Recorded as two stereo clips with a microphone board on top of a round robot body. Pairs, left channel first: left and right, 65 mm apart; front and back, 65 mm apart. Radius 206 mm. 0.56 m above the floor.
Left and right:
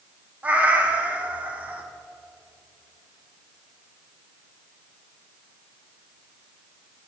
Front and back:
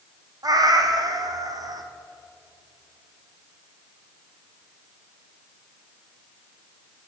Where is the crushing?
I don't hear crushing.